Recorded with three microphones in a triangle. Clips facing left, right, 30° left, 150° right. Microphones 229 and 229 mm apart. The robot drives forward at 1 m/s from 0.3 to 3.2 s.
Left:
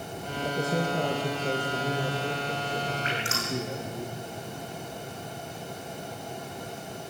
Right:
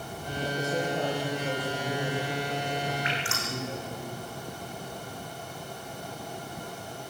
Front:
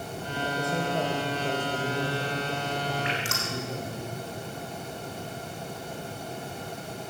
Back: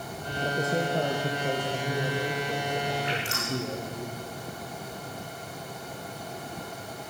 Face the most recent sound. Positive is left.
turn(degrees=40)